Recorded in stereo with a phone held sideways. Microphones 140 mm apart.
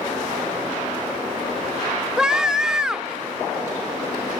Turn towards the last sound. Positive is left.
turn(degrees=-5)  # may be behind; listen again after turning